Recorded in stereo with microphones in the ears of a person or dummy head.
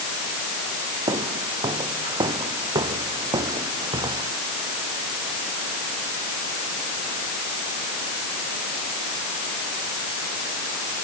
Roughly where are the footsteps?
Right.